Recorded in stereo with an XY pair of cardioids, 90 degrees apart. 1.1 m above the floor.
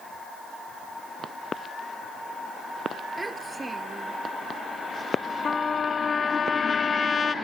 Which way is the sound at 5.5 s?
45° left.